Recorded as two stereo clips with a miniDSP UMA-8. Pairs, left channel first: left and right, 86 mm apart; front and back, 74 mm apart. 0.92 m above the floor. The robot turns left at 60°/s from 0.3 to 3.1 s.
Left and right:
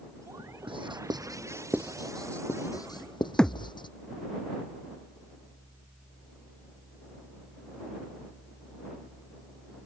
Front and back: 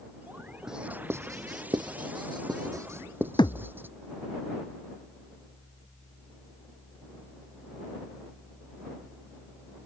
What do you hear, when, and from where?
0.7 s writing: 95° right; by 3.9 s 120° left
3.4 s a thud: 10° left